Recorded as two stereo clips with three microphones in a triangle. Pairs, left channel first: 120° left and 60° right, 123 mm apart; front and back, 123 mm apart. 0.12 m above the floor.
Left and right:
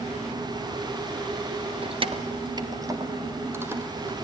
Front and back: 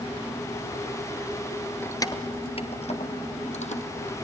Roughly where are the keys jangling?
Ahead right.